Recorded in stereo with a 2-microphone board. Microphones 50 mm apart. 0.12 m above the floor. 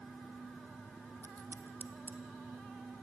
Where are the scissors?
50° left (ahead or behind), 1.3 m.